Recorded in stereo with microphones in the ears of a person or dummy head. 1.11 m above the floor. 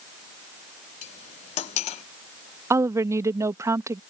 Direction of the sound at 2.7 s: 10° right (ahead or behind).